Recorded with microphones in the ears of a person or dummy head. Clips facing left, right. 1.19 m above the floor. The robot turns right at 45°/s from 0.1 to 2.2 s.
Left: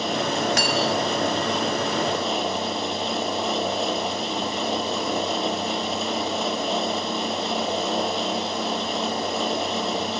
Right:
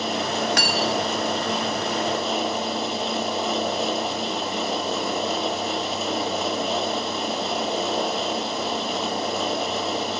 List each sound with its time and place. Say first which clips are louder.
0.6 s cutlery clinking: left 1 dB; 60° right (ahead or behind), 1.0 m; by 1.1 s 70° right (ahead or behind), 1.0 m